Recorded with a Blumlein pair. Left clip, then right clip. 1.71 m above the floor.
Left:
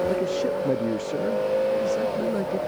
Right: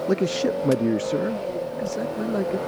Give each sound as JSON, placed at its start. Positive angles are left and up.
{"t": 0.1, "sound": "a man speaking", "azimuth_deg": -25}